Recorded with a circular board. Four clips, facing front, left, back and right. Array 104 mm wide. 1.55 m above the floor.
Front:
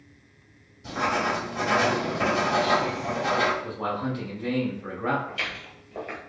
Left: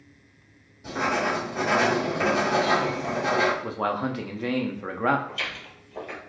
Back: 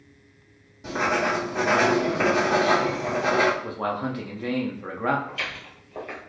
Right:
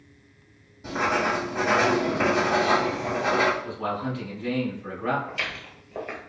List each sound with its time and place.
0.8 s writing: 160° right, 1.7 m
3.6 s a man speaking: 110° left, 0.6 m
5.3 s footsteps: 90° right, 1.7 m